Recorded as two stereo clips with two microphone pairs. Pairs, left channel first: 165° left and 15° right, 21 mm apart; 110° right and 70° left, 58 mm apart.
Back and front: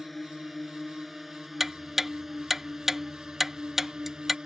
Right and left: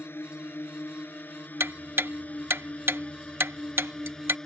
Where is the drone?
110° right; by 4.5 s 40° right.